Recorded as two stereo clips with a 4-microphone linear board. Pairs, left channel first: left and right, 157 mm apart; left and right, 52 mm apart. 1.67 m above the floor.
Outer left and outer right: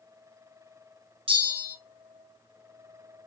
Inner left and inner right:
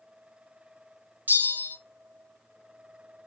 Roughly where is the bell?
Right.